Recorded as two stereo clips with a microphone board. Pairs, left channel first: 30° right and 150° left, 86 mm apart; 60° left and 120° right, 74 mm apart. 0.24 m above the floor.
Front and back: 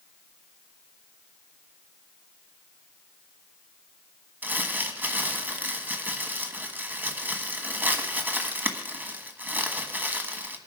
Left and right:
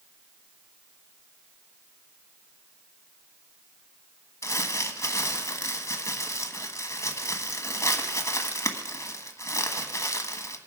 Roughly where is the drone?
No drone in this recording.